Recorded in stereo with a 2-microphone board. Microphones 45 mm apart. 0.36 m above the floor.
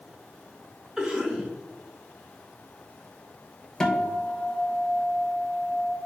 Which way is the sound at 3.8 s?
15° left (ahead or behind).